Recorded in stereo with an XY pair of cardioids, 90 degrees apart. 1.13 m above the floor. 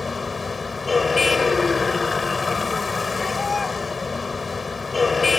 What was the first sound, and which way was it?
A vehicle, 35° left.